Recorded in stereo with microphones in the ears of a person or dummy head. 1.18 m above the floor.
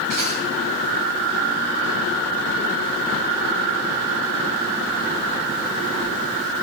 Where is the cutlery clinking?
55° right (ahead or behind), 6.5 m.